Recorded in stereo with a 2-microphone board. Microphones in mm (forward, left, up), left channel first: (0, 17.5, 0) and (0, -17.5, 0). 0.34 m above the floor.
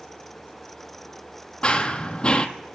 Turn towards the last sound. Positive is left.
turn(degrees=30)  # may be behind; listen again after turning